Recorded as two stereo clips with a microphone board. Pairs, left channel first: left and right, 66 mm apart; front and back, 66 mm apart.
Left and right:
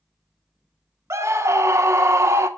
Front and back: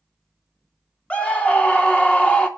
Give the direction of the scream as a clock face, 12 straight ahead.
2 o'clock.